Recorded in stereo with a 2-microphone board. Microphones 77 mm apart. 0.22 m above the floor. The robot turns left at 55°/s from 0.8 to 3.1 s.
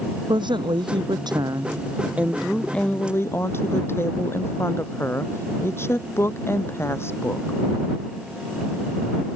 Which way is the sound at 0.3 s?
85° right.